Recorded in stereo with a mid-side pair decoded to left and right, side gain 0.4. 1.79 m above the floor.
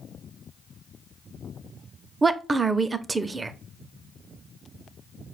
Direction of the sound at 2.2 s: 30° right.